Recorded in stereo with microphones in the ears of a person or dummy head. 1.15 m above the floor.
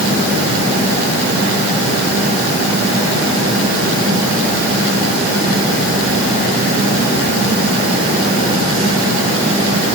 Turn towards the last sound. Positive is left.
No sound to turn to.